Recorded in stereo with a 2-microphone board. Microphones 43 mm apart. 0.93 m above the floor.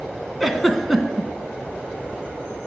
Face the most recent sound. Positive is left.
turn(degrees=5)  # may be behind; listen again after turning